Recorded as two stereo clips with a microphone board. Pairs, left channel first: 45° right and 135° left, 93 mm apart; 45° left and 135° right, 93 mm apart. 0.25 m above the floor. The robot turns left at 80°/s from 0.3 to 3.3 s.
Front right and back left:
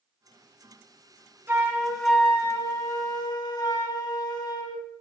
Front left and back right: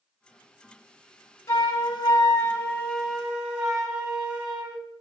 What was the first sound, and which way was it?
A flute, 90° left.